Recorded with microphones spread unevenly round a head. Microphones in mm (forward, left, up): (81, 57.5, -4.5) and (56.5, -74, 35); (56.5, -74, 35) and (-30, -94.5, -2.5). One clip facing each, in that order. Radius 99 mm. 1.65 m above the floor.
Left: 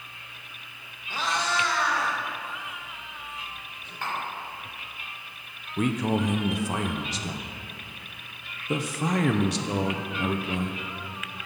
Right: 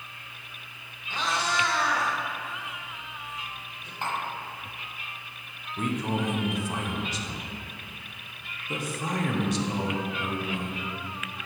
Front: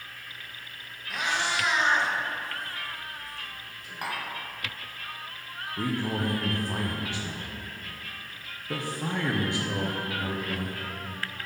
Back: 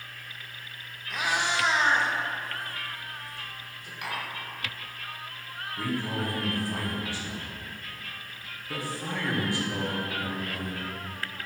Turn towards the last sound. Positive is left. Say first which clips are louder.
# left 4 dB, front 2 dB
turn(degrees=55)